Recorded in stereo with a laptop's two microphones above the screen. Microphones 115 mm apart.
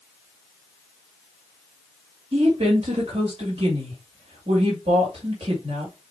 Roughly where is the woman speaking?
Right.